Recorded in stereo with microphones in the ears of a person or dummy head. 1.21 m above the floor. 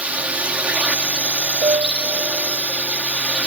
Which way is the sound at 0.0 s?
10° right (ahead or behind).